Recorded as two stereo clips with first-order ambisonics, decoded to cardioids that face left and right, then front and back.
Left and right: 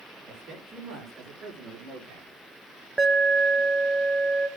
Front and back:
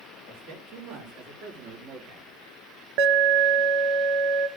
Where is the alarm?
175° right, 0.9 m.